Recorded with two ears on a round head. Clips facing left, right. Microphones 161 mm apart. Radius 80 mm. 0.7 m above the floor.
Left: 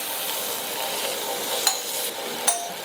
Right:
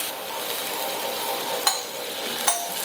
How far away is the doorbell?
About 1.5 m.